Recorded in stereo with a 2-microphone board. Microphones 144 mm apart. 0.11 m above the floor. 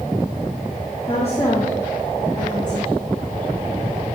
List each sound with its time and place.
1.1 s a woman speaking: 40° left (ahead or behind), 4 m; by 3.0 s 60° left (ahead or behind), 3 m